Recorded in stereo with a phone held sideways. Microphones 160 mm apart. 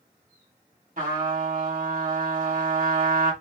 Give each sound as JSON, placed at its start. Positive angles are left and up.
{"t": 1.0, "sound": "a trumpet", "side_deg": -65, "distance_m": 1.9}